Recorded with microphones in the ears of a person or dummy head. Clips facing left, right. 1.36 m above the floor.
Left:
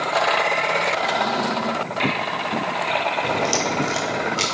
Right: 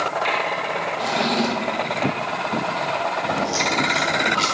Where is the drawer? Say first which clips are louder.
Right 1 dB; 35° right (ahead or behind), 0.7 m.